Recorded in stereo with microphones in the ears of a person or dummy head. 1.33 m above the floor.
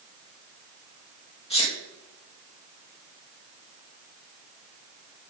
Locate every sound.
1.5 s a sneeze: 30° left (ahead or behind), 1.2 m